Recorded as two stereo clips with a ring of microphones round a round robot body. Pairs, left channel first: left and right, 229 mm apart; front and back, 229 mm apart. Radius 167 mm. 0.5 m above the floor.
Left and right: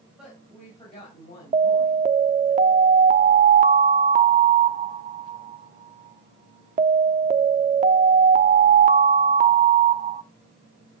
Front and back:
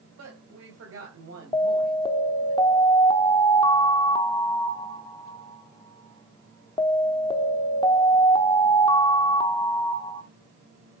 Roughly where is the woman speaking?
Behind.